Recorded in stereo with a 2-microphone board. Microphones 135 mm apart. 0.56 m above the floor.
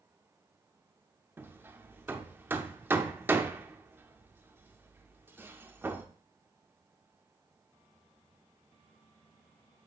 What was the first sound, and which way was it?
Hammering, 15° right (ahead or behind).